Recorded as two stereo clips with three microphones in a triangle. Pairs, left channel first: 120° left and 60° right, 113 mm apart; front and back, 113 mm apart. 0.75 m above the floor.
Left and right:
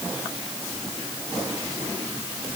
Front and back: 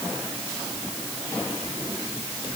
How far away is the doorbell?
No doorbell in this recording.